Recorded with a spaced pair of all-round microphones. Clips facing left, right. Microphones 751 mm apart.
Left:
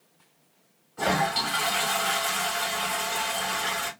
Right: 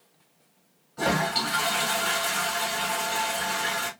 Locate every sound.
1.0 s a toilet flushing: 50° right (ahead or behind), 2.5 m